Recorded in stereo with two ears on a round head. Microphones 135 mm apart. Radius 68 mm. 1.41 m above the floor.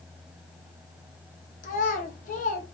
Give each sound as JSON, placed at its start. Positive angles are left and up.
{"t": 1.6, "sound": "a child speaking", "side_deg": 55, "distance_m": 0.9}